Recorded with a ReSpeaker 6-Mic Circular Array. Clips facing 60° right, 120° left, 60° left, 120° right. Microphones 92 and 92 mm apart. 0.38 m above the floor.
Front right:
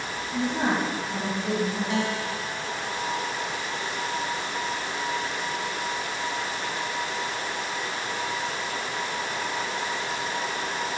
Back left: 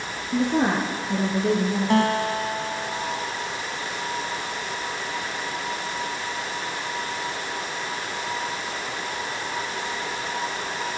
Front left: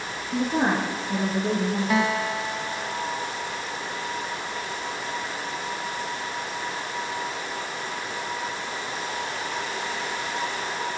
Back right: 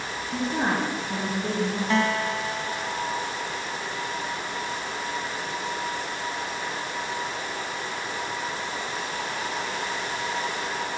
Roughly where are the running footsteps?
No running footsteps in this recording.